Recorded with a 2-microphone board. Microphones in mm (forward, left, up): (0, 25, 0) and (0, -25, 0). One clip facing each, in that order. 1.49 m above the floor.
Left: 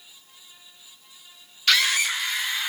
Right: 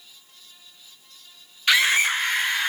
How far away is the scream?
About 0.5 m.